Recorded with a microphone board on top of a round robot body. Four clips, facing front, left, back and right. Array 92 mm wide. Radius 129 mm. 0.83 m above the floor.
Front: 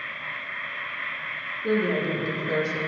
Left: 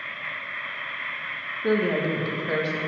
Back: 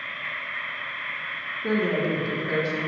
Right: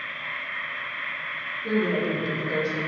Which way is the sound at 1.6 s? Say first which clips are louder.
Left 2 dB, even; 105° left.